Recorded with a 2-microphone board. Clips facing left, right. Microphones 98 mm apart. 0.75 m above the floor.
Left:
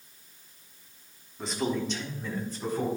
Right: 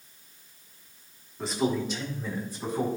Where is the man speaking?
Centre (ahead or behind), 1.6 m; by 2.9 s 15° right (ahead or behind), 2.5 m.